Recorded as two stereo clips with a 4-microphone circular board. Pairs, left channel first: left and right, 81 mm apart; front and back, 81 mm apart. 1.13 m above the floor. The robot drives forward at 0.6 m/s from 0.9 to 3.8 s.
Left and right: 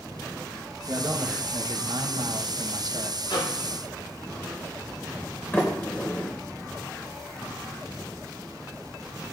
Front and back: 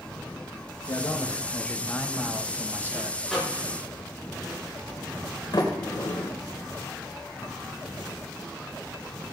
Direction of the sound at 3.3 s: 90° left.